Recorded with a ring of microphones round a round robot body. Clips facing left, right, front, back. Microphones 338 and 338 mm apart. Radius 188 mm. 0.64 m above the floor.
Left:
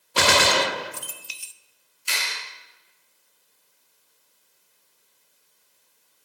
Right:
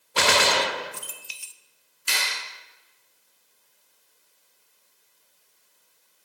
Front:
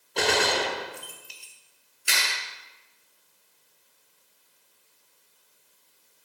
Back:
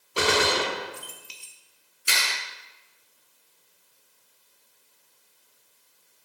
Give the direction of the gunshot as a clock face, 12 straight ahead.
9 o'clock.